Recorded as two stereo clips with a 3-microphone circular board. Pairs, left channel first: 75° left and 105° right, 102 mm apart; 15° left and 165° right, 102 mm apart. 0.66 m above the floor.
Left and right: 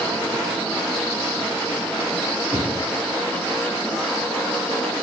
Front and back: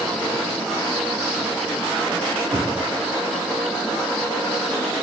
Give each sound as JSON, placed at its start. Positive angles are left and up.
{"t": 2.5, "sound": "knocking", "azimuth_deg": -120, "distance_m": 3.0}